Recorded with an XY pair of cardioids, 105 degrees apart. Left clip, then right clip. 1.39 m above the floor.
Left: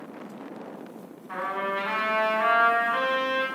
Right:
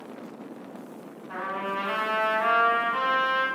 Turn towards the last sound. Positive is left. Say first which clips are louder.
# left 2 dB
turn(degrees=45)